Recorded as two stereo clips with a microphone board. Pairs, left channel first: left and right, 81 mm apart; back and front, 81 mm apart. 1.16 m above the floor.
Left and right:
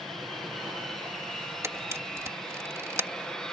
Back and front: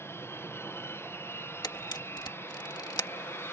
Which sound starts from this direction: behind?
An aircraft, at 0.0 s.